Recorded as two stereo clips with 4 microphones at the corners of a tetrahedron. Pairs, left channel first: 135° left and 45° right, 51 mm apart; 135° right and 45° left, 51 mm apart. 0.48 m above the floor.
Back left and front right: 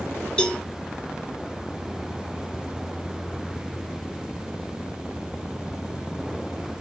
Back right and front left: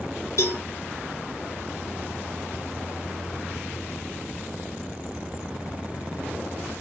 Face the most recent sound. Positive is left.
turn(degrees=-150)